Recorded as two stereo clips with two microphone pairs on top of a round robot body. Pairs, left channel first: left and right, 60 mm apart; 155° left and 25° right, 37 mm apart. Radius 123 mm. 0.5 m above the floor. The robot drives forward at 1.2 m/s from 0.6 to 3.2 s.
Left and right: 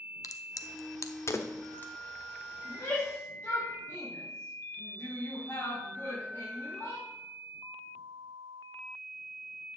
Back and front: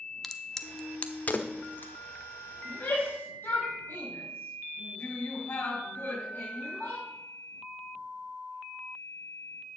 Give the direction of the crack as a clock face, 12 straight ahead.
9 o'clock.